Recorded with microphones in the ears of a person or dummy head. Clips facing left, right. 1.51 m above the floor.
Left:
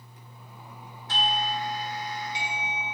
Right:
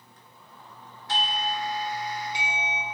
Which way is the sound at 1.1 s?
55° right (ahead or behind).